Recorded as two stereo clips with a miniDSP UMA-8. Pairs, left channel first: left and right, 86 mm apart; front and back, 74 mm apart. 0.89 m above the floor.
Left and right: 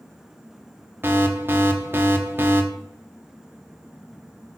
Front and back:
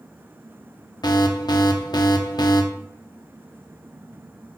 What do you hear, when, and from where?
1.0 s an alarm: 25° right, 0.8 m